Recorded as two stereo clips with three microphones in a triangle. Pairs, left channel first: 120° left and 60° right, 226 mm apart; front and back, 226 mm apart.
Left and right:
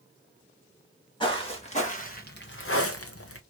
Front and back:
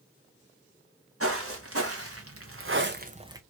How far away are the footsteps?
About 1.7 m.